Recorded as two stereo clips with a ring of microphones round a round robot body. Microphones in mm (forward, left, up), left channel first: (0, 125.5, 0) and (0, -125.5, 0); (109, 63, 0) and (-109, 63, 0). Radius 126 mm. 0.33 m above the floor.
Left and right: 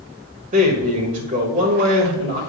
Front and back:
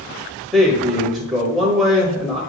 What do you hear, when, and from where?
0.5 s a man speaking: 90° right, 1.4 m